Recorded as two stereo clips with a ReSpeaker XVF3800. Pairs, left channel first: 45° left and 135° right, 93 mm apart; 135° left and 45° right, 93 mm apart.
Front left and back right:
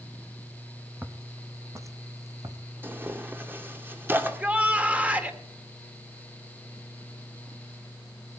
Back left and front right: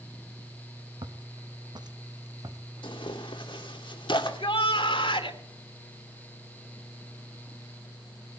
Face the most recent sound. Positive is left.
turn(degrees=150)